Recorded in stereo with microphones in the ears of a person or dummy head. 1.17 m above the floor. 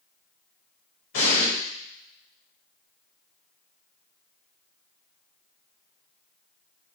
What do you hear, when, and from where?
1.1 s an explosion: 70° left (ahead or behind), 1.3 m